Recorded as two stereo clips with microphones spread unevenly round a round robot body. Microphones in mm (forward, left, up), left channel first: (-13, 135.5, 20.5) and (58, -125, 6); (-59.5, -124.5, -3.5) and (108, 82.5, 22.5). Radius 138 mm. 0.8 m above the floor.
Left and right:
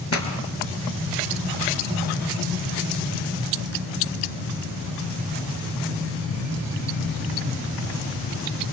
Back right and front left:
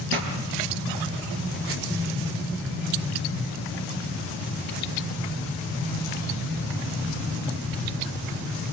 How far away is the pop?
About 5 m.